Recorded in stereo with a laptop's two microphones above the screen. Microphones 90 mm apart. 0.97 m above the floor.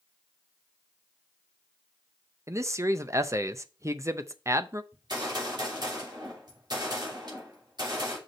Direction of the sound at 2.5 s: 35° right (ahead or behind).